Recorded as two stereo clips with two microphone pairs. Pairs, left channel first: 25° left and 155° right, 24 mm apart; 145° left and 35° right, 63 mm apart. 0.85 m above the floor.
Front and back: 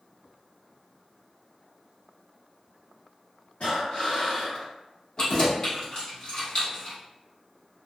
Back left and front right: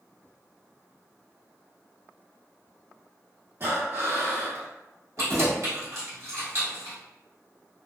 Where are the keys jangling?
10° right, 1.3 m.